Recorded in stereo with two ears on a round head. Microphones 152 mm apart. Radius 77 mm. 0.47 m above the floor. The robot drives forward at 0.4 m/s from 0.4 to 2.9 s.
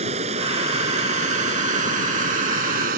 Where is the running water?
40° right (ahead or behind); by 3.0 s 55° right (ahead or behind).